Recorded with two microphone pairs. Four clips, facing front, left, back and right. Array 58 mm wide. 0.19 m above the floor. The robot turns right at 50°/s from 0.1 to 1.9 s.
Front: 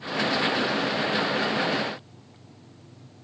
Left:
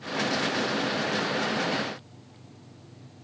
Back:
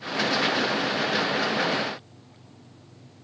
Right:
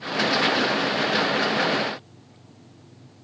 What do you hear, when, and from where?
Only background noise.